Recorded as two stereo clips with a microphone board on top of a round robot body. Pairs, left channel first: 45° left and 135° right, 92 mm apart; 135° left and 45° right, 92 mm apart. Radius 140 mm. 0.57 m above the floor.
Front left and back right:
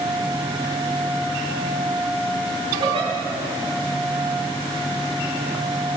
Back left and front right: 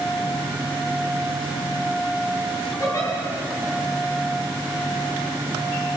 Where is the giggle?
165° right, 7.5 m.